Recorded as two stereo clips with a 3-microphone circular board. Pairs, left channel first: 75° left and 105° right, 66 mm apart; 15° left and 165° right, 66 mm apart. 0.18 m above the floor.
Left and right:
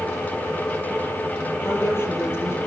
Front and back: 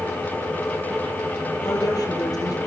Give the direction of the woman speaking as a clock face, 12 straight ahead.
11 o'clock.